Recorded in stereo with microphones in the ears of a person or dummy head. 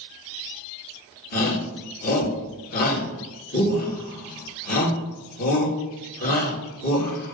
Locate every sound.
1.3 s a shout: 45° left (ahead or behind), 2.5 m